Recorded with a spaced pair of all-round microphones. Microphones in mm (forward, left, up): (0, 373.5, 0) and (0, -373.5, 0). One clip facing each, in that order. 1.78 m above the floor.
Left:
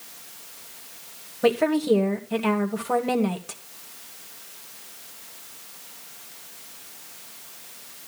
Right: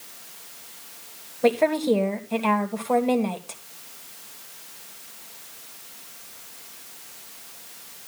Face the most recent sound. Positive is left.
turn(degrees=45)  # may be behind; listen again after turning